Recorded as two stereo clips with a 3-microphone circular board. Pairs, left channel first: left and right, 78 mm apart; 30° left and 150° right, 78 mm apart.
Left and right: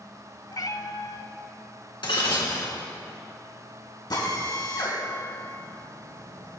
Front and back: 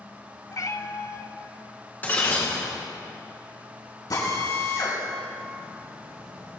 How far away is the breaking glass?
About 3 m.